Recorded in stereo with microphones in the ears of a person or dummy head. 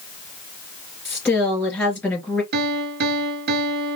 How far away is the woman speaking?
About 2.5 m.